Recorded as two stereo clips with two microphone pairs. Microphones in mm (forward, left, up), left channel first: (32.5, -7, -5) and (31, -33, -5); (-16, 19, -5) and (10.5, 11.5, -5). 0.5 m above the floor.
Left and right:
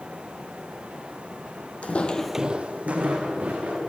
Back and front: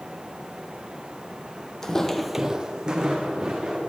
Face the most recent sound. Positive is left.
turn(degrees=-80)